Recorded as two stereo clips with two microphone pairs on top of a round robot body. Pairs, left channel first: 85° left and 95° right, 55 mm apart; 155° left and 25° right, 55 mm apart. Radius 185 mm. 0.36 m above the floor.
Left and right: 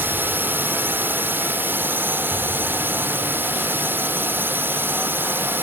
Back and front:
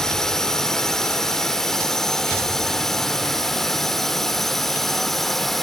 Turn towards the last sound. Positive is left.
turn(degrees=-125)